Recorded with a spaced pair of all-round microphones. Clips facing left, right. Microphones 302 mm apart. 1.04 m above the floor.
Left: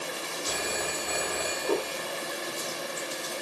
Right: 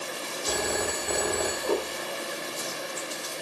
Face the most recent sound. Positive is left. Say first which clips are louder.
# right 6 dB
turn(degrees=-60)  # may be behind; listen again after turning